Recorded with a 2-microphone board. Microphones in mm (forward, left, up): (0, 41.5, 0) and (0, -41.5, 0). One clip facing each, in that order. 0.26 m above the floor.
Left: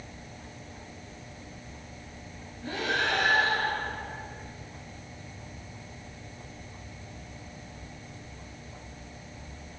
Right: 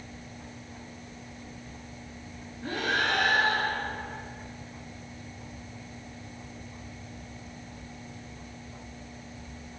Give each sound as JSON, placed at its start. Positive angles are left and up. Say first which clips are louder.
{"t": 2.6, "sound": "breathing", "louder": "right 1 dB", "side_deg": -55, "distance_m": 2.5}